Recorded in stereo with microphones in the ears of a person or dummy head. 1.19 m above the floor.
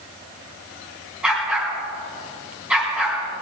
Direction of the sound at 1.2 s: 5° right (ahead or behind).